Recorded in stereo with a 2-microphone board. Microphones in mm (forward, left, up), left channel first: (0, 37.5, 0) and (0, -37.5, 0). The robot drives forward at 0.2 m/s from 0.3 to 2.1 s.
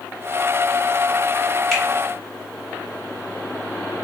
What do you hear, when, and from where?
1.7 s a finger snap: 5° left (ahead or behind), 1.3 m